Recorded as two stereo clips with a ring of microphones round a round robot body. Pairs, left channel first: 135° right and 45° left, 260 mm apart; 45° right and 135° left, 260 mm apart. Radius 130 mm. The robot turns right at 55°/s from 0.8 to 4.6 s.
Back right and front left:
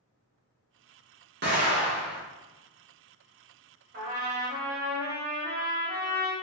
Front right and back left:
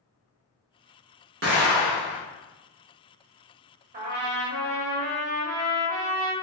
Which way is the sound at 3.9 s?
85° left.